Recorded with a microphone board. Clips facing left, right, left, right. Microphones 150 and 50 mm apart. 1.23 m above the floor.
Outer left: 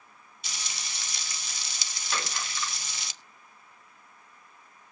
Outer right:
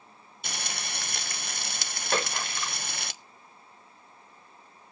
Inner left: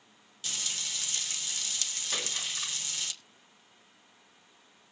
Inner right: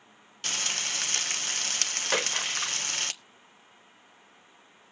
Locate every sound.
0.4 s frying: 60° right (ahead or behind), 0.6 m
2.1 s a splash: 55° right (ahead or behind), 1.6 m